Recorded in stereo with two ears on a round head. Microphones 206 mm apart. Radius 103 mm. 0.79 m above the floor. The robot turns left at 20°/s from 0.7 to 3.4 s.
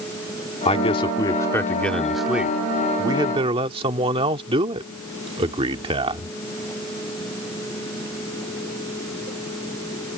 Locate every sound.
0.7 s a man speaking: 30° left; by 6.3 s 25° right